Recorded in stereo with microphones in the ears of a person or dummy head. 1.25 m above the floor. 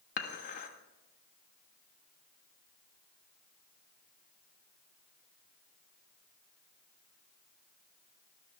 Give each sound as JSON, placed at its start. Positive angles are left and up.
{"t": 0.2, "sound": "dishes clattering", "side_deg": 50, "distance_m": 1.3}